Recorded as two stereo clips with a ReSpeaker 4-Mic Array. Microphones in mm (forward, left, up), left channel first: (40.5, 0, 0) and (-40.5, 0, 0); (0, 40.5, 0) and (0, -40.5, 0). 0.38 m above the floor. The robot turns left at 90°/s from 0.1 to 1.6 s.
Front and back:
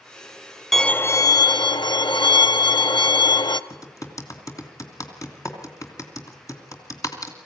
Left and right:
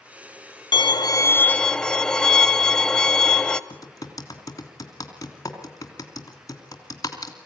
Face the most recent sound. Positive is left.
turn(degrees=45)